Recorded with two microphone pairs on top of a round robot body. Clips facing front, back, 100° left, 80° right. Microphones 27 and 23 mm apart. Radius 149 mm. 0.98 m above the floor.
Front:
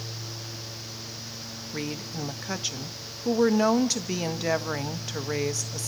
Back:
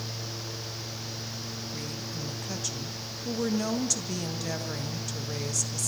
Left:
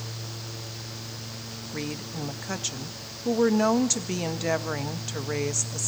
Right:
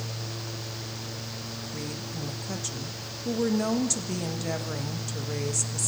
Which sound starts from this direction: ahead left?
A woman speaking, at 1.7 s.